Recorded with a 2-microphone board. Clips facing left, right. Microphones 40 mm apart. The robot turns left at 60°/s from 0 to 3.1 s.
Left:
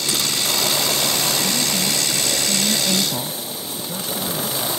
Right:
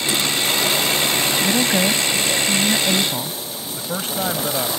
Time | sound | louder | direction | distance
1.4 | a woman speaking | right 4 dB | 75° right | ?
3.8 | a man speaking | right 4 dB | 45° right (ahead or behind) | ?